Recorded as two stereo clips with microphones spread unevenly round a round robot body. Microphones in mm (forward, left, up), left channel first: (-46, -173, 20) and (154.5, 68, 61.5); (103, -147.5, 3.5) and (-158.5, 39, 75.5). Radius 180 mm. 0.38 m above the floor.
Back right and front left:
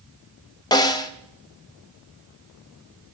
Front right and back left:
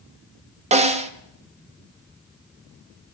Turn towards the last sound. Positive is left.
turn(degrees=-145)